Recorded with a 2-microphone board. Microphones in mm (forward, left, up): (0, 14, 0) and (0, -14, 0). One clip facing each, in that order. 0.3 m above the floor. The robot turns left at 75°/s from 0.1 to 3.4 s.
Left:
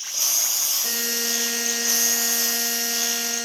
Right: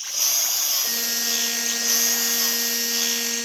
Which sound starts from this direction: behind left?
A buzzer, at 0.8 s.